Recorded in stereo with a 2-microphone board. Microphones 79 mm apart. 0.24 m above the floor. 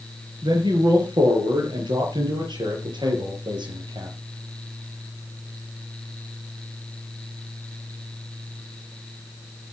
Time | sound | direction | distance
0.4 | a man speaking | 75° right (ahead or behind) | 5 m